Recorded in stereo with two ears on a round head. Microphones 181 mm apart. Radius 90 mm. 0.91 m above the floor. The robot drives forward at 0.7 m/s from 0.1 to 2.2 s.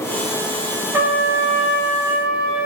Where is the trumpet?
10° right (ahead or behind), 0.7 m; by 2.7 s 5° right (ahead or behind), 1.4 m.